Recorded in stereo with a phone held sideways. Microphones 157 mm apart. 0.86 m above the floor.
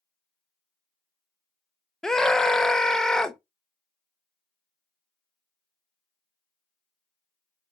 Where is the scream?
5° left (ahead or behind), 0.6 m.